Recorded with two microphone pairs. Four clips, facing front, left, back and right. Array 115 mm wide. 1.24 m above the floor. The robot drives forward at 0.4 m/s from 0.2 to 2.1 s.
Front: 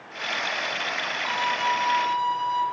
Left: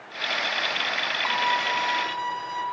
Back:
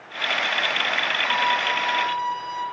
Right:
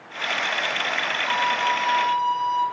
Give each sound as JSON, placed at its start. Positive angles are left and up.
{"t": 1.2, "sound": "a violin", "azimuth_deg": 90, "distance_m": 3.5}